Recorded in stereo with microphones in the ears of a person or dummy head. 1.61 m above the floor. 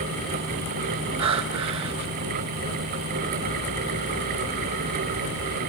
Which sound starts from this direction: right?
Breathing, at 1.2 s.